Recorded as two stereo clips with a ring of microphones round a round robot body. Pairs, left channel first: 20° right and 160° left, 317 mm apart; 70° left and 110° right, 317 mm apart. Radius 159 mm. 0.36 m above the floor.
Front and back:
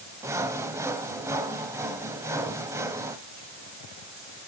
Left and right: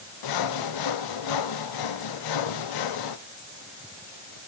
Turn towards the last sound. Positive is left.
turn(degrees=75)